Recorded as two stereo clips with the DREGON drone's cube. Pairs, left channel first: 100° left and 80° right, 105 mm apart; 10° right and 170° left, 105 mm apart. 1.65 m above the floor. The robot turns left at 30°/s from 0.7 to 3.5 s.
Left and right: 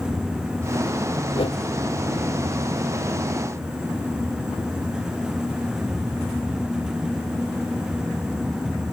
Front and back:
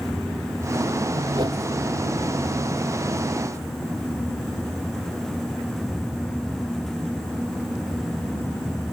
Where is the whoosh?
130° left; by 1.6 s 125° left.